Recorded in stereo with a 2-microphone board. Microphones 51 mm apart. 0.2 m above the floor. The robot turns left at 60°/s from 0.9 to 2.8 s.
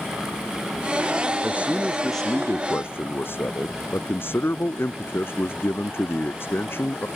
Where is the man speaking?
145° right; by 7.1 s 135° left.